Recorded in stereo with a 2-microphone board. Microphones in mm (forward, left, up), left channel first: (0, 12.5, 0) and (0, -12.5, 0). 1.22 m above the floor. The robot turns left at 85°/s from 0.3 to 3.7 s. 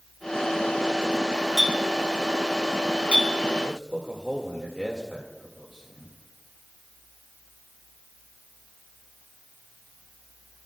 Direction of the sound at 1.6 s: 10° right (ahead or behind).